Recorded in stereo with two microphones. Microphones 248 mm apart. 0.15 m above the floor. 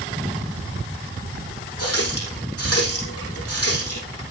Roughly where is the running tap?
Left.